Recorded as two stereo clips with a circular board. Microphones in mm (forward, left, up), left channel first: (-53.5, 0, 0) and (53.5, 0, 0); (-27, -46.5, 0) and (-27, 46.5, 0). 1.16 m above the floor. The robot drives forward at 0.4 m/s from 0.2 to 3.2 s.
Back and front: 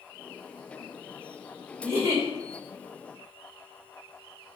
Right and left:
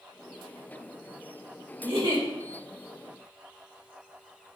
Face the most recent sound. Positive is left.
turn(degrees=80)